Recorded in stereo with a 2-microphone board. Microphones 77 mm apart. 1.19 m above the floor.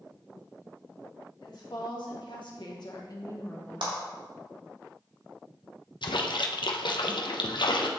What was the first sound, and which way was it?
A woman speaking, 65° left (ahead or behind).